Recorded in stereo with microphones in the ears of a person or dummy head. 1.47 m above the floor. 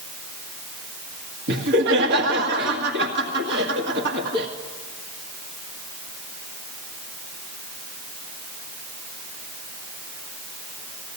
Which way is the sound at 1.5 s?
65° right (ahead or behind).